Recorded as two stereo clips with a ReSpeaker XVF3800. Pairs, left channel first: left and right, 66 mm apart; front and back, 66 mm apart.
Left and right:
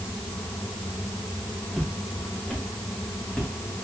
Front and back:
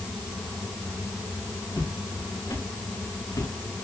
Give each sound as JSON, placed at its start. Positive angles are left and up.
{"t": 1.7, "sound": "footsteps", "azimuth_deg": -5, "distance_m": 8.5}